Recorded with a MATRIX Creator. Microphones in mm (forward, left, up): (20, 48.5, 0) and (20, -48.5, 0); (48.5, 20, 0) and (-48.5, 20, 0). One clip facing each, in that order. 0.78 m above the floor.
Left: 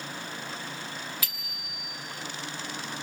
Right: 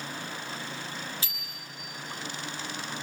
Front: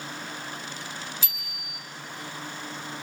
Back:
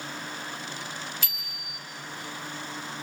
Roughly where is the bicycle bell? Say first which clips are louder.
Left 1 dB, even; behind right.